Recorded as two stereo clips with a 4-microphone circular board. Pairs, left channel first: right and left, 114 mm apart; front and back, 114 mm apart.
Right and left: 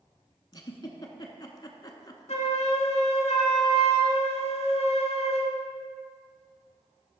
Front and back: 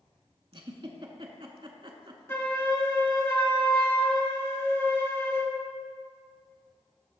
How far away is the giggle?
About 0.8 m.